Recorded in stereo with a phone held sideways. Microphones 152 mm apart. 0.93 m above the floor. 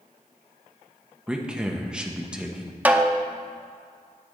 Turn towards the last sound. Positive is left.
turn(degrees=-10)  # may be behind; listen again after turning